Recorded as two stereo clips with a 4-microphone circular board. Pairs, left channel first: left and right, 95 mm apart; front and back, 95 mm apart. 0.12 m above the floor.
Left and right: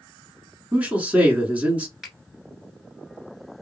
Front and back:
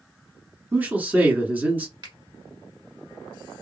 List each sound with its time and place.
0.7 s a man speaking: 140° right, 1.2 m
2.0 s a finger snap: 175° right, 1.5 m